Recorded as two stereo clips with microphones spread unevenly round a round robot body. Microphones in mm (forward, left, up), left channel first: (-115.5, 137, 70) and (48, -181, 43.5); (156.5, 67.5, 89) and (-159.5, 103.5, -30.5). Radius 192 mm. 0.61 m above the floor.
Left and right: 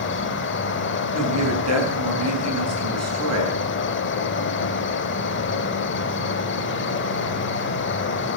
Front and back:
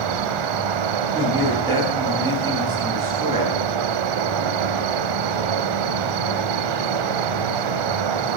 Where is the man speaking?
110° right, 8 m.